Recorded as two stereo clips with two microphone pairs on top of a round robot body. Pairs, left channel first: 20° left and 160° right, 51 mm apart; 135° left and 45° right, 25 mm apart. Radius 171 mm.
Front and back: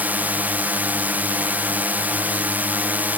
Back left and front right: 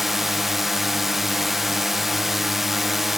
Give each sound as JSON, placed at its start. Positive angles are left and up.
{"t": 0.0, "sound": "a drone", "azimuth_deg": -135}